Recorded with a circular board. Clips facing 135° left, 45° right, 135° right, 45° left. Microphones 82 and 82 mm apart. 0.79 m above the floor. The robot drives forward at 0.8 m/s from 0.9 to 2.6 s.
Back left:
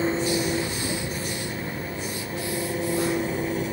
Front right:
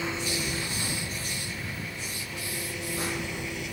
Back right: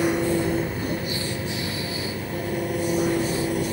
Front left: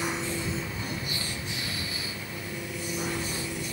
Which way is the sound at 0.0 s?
170° right.